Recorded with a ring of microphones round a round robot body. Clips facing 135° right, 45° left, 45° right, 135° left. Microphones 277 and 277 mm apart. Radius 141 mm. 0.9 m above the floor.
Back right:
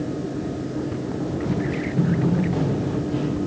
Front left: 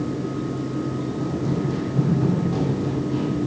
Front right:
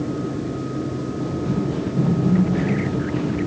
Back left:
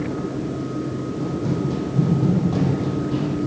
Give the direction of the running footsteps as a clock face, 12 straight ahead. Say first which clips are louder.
Even, even; 8 o'clock.